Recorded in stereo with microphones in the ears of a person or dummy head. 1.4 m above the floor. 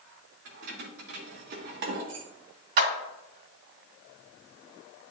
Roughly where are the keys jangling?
Right.